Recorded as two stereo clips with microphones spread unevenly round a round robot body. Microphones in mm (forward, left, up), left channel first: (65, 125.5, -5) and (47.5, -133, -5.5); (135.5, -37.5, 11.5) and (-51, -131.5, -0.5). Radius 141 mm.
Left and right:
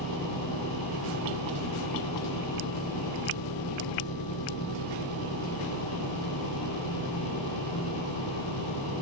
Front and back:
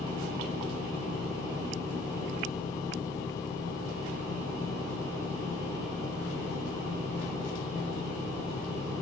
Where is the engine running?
105° left.